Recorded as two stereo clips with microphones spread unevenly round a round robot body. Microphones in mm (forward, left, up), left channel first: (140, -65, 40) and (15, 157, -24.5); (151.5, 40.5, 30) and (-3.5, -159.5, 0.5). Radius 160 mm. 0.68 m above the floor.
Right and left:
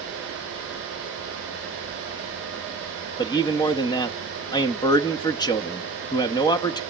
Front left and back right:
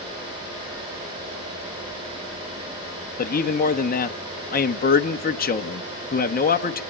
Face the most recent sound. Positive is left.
turn(degrees=25)